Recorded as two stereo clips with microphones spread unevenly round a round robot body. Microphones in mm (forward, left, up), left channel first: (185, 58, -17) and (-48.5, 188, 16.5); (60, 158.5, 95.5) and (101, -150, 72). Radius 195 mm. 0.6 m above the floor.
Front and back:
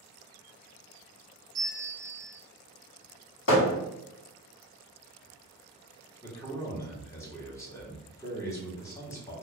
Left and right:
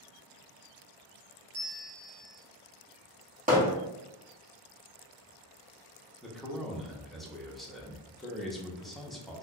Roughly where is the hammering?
Ahead right.